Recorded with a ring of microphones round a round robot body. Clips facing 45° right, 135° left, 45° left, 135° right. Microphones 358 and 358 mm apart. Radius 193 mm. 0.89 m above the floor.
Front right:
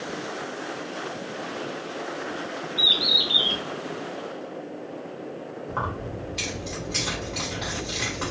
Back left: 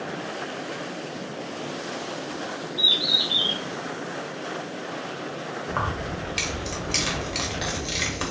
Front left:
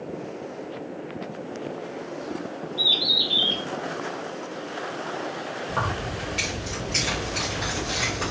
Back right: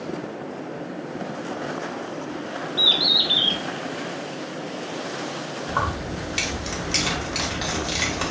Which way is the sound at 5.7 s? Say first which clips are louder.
Back left 1 dB, back right 2 dB; 175° left.